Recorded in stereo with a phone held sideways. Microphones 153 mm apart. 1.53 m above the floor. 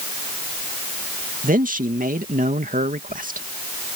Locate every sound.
1.4 s a man speaking: 65° right (ahead or behind)